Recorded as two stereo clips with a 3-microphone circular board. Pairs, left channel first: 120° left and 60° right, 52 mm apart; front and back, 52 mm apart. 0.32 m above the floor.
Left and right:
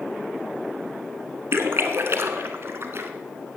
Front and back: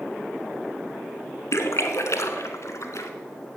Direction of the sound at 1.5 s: 20° right.